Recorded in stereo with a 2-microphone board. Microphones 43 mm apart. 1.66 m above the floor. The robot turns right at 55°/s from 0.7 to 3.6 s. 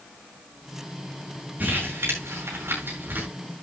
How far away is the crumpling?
About 7.5 m.